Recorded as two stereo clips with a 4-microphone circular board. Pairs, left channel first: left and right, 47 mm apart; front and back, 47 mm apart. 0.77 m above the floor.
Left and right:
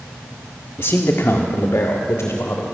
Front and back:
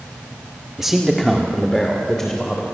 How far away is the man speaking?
About 1.5 m.